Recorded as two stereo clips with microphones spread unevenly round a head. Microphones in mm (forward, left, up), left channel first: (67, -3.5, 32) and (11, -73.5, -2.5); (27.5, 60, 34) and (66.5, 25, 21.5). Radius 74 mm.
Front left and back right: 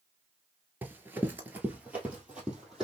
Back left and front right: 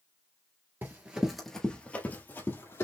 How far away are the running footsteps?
About 1.1 m.